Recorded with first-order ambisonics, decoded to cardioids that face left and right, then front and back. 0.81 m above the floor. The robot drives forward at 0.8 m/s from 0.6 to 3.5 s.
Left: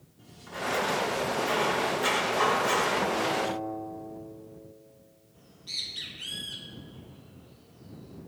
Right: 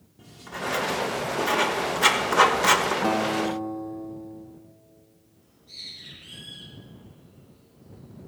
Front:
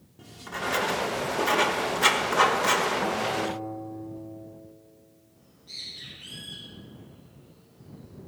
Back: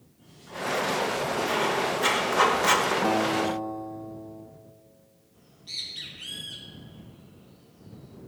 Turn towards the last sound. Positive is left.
turn(degrees=125)